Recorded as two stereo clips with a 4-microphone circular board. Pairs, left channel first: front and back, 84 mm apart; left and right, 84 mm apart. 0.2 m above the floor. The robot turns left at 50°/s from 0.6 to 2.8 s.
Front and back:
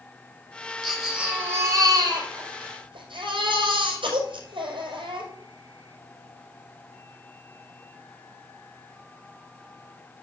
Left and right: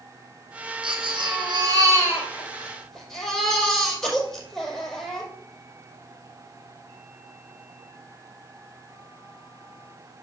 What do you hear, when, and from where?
0.8 s a baby crying: 90° right, 6 m; by 5.3 s 175° left, 6 m